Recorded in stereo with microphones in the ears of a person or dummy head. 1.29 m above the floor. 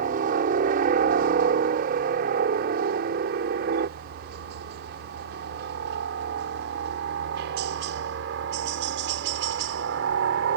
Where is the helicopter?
55° right (ahead or behind); by 10.6 s 75° right (ahead or behind).